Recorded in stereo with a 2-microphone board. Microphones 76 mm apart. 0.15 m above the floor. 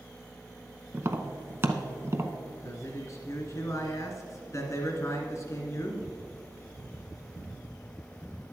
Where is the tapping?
35° right (ahead or behind), 0.7 m.